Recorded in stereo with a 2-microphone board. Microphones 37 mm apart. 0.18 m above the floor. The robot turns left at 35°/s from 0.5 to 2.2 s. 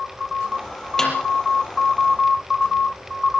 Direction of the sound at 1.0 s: 10° left (ahead or behind).